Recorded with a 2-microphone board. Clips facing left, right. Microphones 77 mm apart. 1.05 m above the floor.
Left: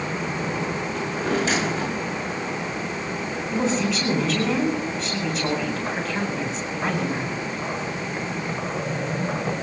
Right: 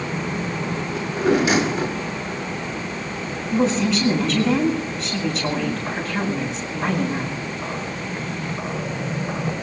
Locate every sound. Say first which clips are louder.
0.9 s a drawer: right 7 dB; 15° right (ahead or behind), 6 m
3.5 s a woman speaking: right 4 dB; centre (ahead or behind), 8.5 m